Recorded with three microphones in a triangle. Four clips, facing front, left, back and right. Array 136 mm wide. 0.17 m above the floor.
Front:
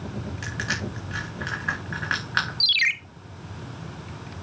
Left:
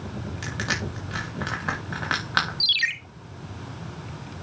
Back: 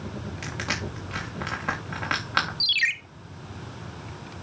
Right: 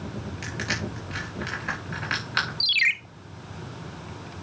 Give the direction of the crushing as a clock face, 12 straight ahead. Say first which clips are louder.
Left 2 dB, front 1 dB; 8 o'clock.